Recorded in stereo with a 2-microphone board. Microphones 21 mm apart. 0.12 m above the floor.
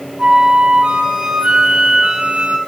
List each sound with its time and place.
0.2 s a flute: 70° right (ahead or behind), 1.8 m